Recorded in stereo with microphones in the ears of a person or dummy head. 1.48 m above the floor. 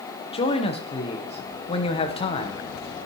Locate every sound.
0.3 s a man speaking: 30° left (ahead or behind), 1.1 m